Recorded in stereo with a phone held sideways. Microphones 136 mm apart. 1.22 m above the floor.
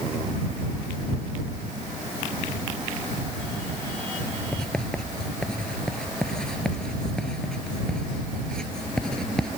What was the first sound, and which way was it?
Writing, 5° left (ahead or behind).